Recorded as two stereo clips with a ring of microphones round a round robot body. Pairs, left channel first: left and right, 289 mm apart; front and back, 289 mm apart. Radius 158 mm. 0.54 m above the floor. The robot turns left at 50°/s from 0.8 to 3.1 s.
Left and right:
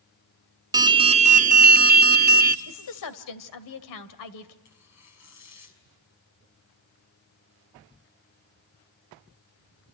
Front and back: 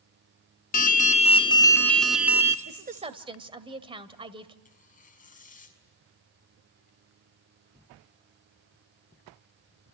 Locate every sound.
0.7 s an alarm: 25° right, 0.9 m; by 2.5 s 115° right, 0.9 m
2.6 s a woman speaking: 130° left, 2 m; by 4.5 s 110° left, 2 m
4.7 s tearing paper: 60° left, 6 m